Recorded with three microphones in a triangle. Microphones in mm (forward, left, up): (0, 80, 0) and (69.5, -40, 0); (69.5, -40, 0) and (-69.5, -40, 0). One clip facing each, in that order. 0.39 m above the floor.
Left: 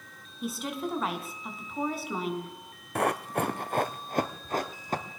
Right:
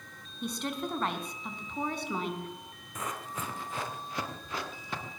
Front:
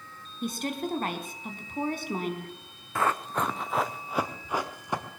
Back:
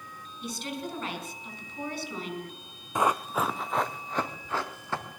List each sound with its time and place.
0.4 s a woman speaking: 35° left, 4 m
3.0 s running footsteps: 110° left, 1.2 m; by 5.2 s 75° left, 3 m